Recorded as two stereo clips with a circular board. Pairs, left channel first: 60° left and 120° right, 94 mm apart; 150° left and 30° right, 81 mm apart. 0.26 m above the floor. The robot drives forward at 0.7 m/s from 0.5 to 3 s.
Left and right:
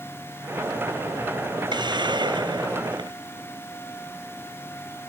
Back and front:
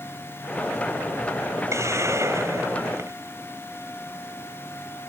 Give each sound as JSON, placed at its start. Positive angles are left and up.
{"t": 1.7, "sound": "a hiss", "azimuth_deg": -85}